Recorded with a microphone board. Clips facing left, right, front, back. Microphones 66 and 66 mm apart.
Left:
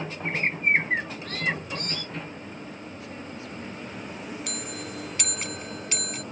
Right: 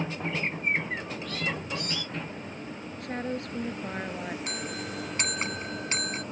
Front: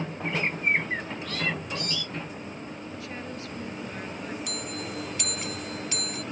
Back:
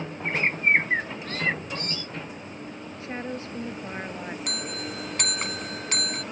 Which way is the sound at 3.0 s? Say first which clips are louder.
Right 10 dB, back 8 dB; 120° right.